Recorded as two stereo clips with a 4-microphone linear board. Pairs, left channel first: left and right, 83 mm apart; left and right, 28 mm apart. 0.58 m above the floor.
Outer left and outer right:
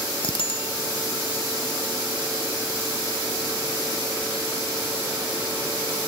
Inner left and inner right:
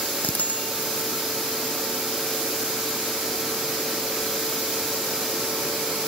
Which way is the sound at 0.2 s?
85° left.